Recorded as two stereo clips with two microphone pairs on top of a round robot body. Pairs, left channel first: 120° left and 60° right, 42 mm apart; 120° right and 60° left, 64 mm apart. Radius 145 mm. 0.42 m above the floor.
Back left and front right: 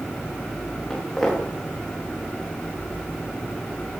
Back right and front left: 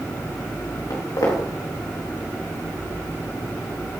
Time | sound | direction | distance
0.9 | footsteps | 160° right | 4.5 m